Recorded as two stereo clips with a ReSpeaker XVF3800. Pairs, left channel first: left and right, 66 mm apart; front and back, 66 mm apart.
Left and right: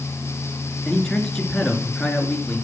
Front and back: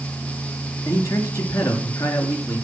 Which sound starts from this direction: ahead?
A man speaking, at 0.8 s.